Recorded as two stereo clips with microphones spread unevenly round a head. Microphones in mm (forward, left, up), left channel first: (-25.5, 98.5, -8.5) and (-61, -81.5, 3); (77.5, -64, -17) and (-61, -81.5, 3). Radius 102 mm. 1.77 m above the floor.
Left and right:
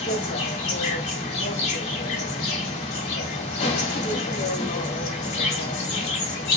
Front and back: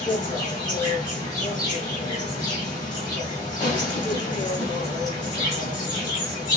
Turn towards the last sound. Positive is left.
turn(degrees=70)